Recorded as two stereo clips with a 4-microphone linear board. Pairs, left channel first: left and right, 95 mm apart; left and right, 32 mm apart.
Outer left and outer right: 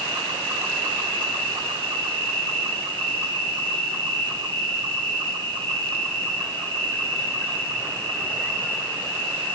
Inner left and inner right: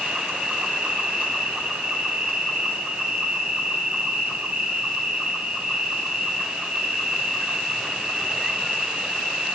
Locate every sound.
0.0 s an insect: 60° right (ahead or behind), 7.5 m